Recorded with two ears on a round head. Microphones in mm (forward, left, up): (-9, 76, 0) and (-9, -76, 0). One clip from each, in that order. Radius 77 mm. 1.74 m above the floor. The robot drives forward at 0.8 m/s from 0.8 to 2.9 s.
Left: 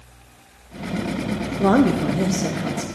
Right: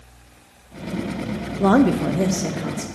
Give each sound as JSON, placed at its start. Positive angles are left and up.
{"t": 1.6, "sound": "a woman speaking", "side_deg": -20, "distance_m": 0.6}